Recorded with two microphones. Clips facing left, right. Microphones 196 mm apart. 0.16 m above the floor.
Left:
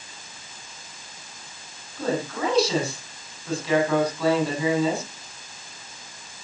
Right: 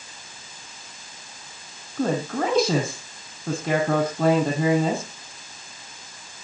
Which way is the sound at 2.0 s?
45° right (ahead or behind).